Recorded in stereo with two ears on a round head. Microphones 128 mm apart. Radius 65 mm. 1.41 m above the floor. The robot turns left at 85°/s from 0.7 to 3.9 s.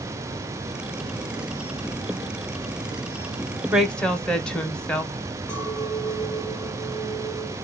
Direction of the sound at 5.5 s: 10° left (ahead or behind).